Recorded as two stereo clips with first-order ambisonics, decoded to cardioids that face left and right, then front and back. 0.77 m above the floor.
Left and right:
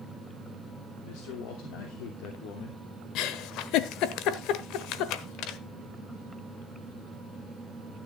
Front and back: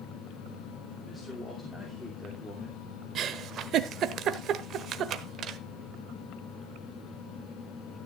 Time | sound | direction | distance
1.0 | a man speaking | 80° left | 2.5 m
3.1 | a giggle | 125° left | 1.0 m